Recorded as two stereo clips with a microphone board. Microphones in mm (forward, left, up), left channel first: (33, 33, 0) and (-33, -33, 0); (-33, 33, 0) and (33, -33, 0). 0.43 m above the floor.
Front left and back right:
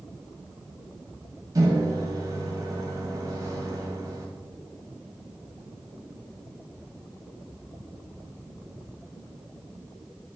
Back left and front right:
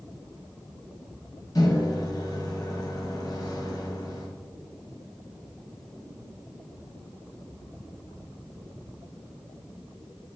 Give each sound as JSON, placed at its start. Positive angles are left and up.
{"t": 1.6, "sound": "a microwave", "azimuth_deg": 180, "distance_m": 1.8}